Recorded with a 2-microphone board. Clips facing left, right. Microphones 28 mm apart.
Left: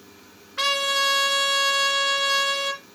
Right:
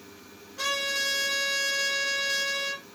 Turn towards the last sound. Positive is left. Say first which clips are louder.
# left 6 dB
turn(degrees=65)  # may be behind; listen again after turning